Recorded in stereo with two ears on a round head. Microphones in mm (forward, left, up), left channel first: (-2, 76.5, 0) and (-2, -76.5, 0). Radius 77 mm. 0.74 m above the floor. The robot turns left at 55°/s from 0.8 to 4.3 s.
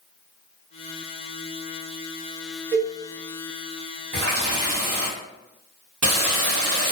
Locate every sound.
2.7 s a cowbell: 50° right (ahead or behind), 1.2 m; by 3.0 s 40° right (ahead or behind), 1.2 m
4.1 s a running tap: 85° right, 1.0 m; by 6.9 s 80° right, 1.0 m